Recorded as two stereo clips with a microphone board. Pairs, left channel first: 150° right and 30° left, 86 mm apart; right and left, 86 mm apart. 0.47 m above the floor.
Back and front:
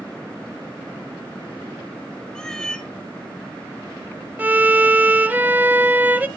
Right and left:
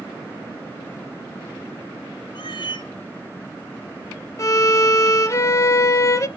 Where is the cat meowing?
70° right, 1.1 m.